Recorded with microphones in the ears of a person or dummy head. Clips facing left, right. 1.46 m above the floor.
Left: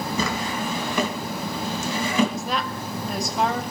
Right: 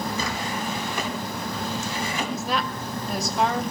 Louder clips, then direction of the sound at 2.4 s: Even; centre (ahead or behind).